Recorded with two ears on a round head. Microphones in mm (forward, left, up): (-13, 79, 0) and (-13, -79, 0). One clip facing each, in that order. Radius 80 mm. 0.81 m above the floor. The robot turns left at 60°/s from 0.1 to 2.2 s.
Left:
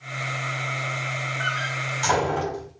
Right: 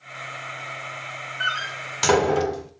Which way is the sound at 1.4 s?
25° right (ahead or behind).